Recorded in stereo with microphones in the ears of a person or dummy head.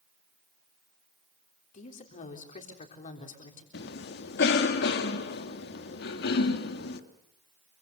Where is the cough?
65° left (ahead or behind), 2.5 m.